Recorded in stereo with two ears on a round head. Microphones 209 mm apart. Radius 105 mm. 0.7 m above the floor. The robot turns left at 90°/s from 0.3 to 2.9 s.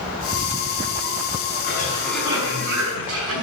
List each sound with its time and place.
1.6 s a cough: 50° left, 6 m; by 3.4 s 65° right, 6 m